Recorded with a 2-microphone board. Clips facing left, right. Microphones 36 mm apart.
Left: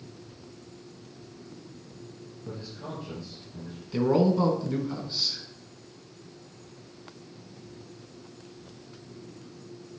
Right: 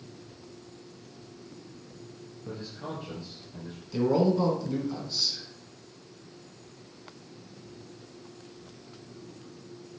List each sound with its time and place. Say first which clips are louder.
2.5 s a man speaking: right 1 dB; 20° right (ahead or behind), 3.5 m
3.9 s a man speaking: left 1 dB; 20° left (ahead or behind), 1.9 m